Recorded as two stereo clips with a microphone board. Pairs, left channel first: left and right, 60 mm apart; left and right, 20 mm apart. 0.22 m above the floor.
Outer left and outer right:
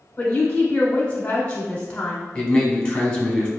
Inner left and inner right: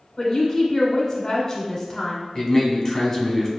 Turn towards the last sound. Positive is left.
turn(degrees=20)  # may be behind; listen again after turning